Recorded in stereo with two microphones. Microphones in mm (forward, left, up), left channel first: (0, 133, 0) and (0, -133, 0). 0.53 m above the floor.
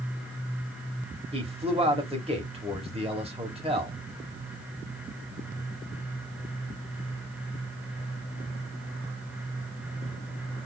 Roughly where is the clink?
I don't hear a clink.